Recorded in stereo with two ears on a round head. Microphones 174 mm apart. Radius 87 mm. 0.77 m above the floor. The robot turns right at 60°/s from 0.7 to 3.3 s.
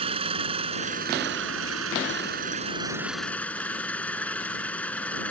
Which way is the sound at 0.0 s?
150° right.